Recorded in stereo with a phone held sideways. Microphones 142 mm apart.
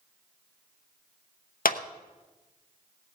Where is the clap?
90° left, 0.8 m.